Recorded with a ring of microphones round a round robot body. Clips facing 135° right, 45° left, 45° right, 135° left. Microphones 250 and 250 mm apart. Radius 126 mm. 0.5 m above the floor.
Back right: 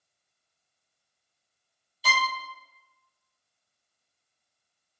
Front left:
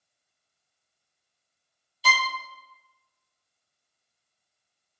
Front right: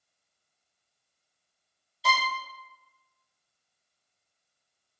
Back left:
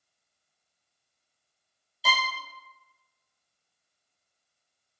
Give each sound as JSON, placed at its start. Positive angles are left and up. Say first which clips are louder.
{"t": 2.0, "sound": "a violin", "louder": "front left 1 dB, front right 2 dB", "azimuth_deg": 50, "distance_m": 0.5}